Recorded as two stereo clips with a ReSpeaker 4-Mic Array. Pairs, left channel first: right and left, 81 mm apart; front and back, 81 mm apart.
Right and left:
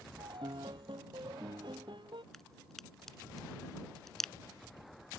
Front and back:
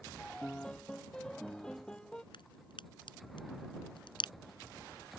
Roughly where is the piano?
Left.